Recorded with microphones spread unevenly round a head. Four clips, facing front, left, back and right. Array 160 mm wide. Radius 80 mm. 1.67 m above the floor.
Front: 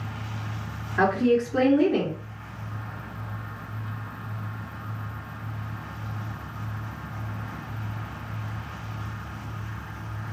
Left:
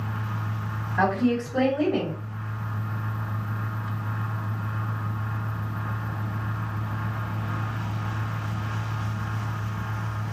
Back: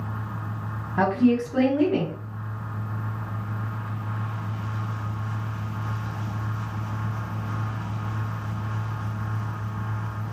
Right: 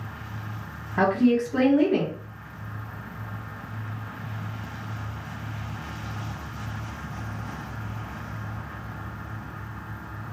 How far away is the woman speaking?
About 1.4 m.